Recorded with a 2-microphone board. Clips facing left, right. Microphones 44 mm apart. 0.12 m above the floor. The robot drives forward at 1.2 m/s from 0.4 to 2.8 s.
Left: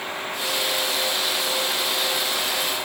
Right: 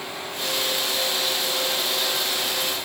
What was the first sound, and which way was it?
Only background noise.